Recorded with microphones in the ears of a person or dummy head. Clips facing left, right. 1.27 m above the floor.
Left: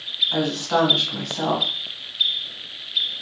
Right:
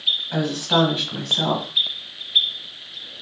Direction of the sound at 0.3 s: 25° right (ahead or behind).